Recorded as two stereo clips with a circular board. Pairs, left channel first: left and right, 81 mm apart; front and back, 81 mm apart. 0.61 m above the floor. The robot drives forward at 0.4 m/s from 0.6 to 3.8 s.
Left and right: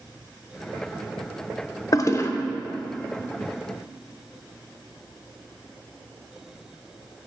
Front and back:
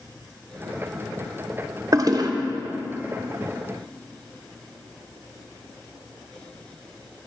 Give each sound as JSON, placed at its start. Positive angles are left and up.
{"t": 1.9, "sound": "a toilet flushing", "azimuth_deg": 135, "distance_m": 0.5}